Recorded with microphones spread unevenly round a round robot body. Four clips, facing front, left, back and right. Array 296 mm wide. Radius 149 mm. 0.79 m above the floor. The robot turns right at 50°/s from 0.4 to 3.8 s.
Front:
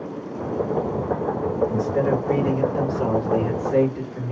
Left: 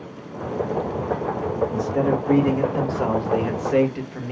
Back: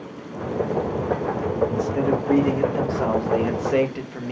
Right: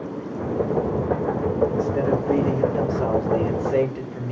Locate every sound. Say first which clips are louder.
1.7 s a man speaking: even, front 1 dB; 40° left, 1.4 m; by 4.3 s 145° left, 1.4 m